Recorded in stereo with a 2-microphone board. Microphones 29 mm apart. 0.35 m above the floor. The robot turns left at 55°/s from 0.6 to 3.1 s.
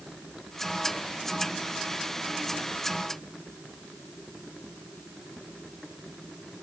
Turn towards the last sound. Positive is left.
No sound to turn to.